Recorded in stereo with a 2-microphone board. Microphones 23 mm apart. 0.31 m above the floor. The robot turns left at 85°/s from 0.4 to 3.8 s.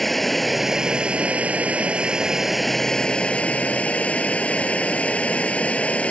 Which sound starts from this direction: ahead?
Running water, at 0.0 s.